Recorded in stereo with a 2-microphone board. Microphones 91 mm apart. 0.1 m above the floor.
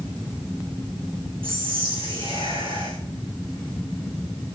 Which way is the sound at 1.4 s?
75° right (ahead or behind).